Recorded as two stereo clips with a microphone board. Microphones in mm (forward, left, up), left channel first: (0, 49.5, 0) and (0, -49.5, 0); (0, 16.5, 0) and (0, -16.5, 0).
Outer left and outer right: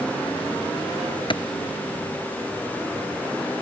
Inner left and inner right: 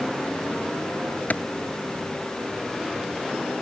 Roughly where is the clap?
Left.